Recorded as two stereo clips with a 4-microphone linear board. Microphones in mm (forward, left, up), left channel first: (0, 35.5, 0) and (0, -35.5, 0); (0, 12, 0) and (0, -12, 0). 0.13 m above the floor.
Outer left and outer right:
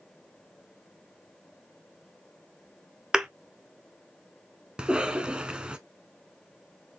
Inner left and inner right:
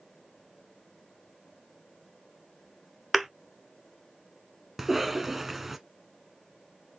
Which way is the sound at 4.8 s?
15° right (ahead or behind).